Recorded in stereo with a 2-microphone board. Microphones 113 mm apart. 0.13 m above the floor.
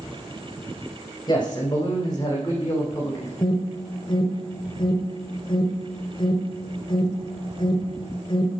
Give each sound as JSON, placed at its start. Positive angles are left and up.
{"t": 1.3, "sound": "a man speaking", "side_deg": 35, "distance_m": 8.5}
{"t": 3.4, "sound": "an alarm", "side_deg": 40, "distance_m": 3.0}